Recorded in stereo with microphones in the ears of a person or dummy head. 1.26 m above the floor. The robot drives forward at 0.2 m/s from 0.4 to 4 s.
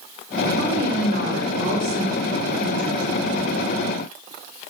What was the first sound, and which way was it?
A woman speaking, 70° right (ahead or behind).